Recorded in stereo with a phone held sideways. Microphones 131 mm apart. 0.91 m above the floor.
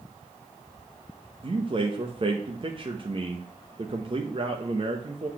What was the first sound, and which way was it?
A man speaking, 40° right (ahead or behind).